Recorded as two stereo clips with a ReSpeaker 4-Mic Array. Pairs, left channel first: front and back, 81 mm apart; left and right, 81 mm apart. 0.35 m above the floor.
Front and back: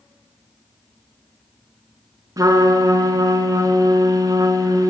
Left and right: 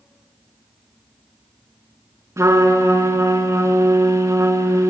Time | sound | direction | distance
2.4 | a trumpet | 140° right | 1.0 m